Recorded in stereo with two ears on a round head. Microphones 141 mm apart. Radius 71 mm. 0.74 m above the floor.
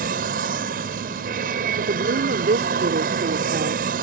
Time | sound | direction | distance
0.0 | an aircraft | 65° right (ahead or behind) | ?
1.8 | a woman speaking | 70° right (ahead or behind) | ?